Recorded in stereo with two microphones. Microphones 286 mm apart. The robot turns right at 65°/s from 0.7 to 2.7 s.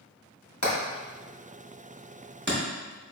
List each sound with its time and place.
0.6 s hammering: 70° left (ahead or behind), 1.9 m; by 2.6 s 45° right (ahead or behind), 1.9 m